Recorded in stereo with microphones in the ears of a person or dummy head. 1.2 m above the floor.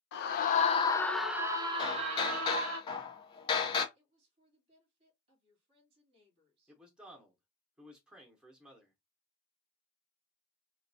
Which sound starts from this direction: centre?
A man speaking, at 6.7 s.